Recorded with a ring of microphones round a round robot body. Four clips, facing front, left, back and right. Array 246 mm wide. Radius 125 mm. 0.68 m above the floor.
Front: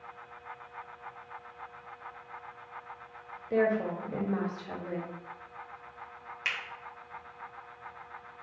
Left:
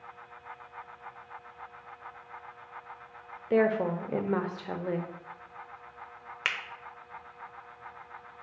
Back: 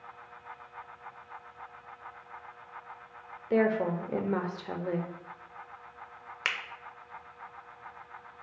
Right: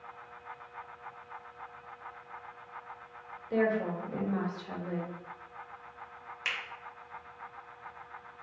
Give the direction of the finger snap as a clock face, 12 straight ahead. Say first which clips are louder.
Left 4 dB, back 3 dB; 8 o'clock.